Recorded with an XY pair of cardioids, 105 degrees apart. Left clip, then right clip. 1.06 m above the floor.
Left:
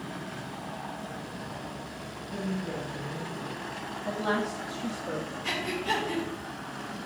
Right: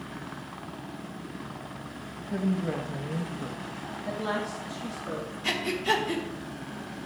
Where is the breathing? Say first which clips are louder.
Right 4 dB; 35° right, 1.5 m.